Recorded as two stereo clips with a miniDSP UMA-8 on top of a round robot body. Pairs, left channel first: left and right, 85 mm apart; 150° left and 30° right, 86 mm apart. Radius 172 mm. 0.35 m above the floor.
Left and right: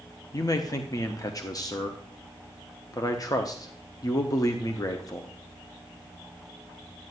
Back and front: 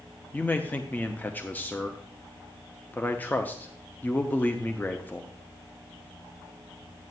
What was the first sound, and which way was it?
A man speaking, 90° left.